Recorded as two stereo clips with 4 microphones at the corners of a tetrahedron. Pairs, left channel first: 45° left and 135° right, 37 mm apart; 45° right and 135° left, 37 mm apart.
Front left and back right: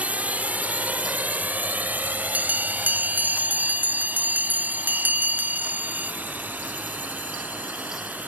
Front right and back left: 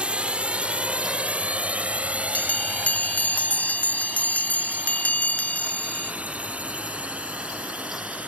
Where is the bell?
95° right.